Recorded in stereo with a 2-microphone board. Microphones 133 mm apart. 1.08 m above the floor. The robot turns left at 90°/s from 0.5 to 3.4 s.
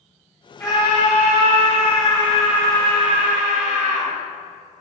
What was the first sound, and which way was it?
A scream, 160° left.